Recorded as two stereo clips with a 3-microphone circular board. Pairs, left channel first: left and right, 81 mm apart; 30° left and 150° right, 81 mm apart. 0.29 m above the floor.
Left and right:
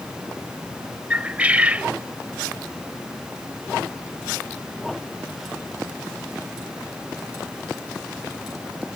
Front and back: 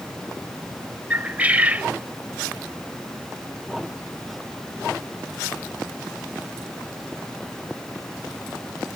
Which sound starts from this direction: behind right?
A bird, at 1.1 s.